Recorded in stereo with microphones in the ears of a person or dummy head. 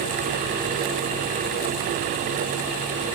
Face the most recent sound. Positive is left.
No sound to turn to.